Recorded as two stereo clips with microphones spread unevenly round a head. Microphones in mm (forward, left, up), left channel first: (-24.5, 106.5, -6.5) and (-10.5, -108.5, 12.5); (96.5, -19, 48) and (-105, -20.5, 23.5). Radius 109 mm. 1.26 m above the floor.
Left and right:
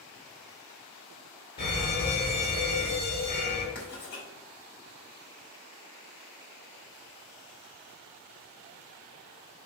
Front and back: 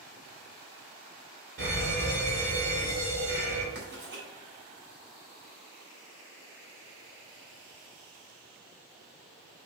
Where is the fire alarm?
140° left, 4 m.